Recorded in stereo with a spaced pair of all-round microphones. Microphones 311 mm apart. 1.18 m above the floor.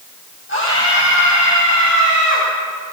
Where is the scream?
40° left (ahead or behind), 8.5 m; by 2.5 s 50° left (ahead or behind), 9.5 m.